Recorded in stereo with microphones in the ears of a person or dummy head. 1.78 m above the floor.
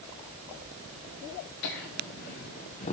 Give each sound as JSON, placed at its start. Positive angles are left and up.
{"t": 1.6, "sound": "laughter", "side_deg": 40, "distance_m": 1.0}